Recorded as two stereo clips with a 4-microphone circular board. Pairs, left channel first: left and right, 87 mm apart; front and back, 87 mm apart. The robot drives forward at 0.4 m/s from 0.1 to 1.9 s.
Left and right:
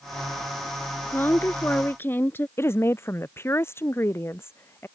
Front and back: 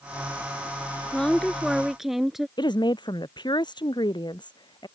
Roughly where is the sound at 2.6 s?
Ahead left.